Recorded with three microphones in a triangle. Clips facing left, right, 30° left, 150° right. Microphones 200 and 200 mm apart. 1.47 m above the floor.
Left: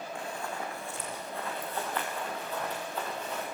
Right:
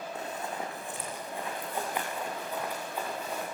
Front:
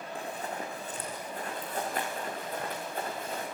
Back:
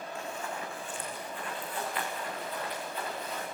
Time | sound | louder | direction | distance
0.1 | running footsteps | right 1 dB, front 3 dB | 25° right | 4.5 m